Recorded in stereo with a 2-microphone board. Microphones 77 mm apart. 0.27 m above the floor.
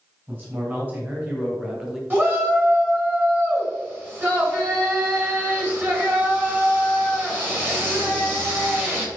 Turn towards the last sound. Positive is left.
turn(degrees=-30)  # may be behind; listen again after turning